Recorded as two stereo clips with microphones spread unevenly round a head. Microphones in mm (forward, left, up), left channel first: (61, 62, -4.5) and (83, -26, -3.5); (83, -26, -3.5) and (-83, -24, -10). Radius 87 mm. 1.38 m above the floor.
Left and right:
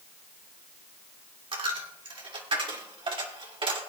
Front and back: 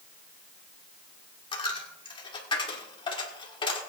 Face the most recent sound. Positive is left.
turn(degrees=-60)